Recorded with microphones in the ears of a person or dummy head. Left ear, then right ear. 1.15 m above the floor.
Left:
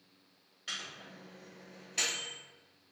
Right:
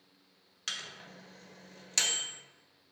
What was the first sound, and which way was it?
A microwave, 50° right (ahead or behind).